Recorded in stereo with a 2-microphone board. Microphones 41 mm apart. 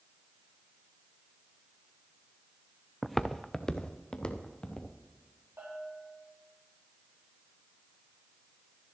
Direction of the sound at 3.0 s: 5° right (ahead or behind).